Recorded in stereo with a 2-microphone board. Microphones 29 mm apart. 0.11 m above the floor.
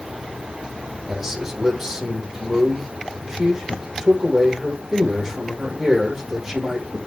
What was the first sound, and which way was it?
A man speaking, 20° right (ahead or behind).